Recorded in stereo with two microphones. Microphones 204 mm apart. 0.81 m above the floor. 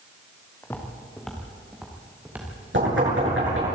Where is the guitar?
No guitar in this recording.